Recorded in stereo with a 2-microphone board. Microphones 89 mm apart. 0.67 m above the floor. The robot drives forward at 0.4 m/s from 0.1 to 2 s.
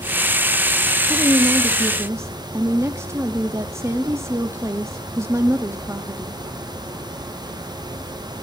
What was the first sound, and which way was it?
A woman speaking, 35° right (ahead or behind).